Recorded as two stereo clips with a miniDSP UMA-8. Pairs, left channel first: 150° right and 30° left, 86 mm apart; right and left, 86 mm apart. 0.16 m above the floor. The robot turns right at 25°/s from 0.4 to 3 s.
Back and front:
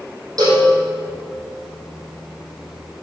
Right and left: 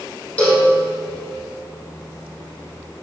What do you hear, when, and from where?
0.4 s a cowbell: 15° right, 3.5 m; by 0.7 s 10° right, 3.5 m